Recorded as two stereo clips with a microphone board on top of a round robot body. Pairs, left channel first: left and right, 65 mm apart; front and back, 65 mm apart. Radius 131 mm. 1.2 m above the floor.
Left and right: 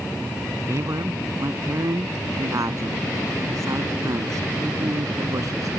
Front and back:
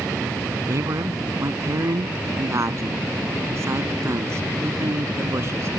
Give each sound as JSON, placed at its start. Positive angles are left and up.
{"t": 0.7, "sound": "a man speaking", "azimuth_deg": -140}